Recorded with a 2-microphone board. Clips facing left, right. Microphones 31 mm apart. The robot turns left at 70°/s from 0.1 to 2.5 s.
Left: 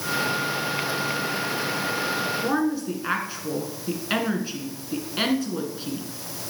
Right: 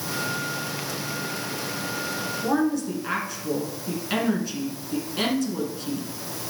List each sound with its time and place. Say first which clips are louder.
2.4 s a woman speaking: right 4 dB; 20° left (ahead or behind), 1.8 m; by 6.4 s 25° left (ahead or behind), 1.8 m